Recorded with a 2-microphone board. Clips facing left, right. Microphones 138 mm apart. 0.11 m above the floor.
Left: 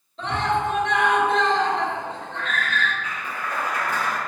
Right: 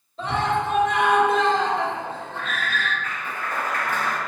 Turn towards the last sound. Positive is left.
turn(degrees=15)  # may be behind; listen again after turning